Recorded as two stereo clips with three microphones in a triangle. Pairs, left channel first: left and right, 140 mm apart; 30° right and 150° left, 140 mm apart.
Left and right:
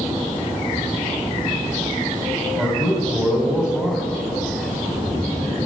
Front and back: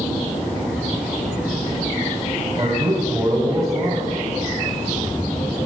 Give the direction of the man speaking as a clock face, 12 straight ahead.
6 o'clock.